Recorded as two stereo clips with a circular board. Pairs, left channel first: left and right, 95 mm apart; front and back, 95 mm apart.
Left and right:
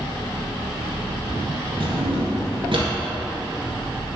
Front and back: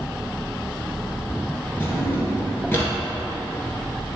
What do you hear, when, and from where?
1.8 s a drawer: 65° right, 1.6 m